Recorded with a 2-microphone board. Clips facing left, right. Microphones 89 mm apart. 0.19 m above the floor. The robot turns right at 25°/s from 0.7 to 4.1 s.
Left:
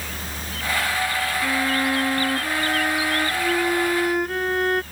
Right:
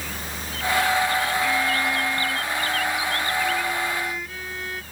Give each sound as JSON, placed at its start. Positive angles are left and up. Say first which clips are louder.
{"t": 1.4, "sound": "a violin", "louder": "left 1 dB", "azimuth_deg": 40}